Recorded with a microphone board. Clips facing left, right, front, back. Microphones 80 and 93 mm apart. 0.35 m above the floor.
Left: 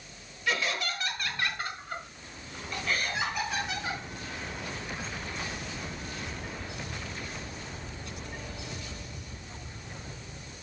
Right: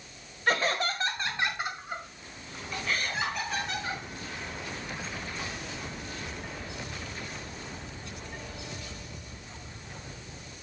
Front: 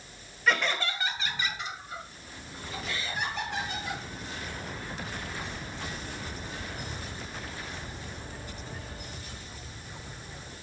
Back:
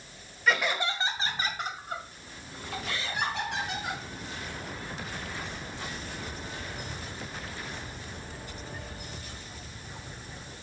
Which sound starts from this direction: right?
Laughter, at 0.5 s.